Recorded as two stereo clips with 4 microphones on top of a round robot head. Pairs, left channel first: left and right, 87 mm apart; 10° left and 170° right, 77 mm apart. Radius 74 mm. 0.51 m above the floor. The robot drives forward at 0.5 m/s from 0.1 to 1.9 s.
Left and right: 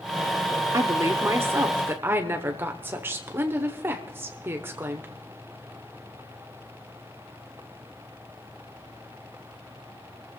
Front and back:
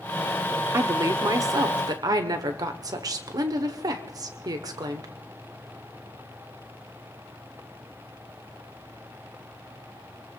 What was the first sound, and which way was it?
A woman speaking, 130° right.